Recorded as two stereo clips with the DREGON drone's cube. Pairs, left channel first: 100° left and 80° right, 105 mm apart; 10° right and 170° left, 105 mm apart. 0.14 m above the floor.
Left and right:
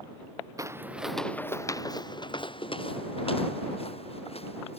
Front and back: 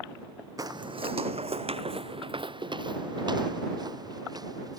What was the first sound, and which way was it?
Footsteps, 135° right.